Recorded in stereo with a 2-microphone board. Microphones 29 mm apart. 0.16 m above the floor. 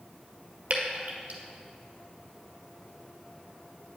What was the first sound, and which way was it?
Dripping, 45° right (ahead or behind).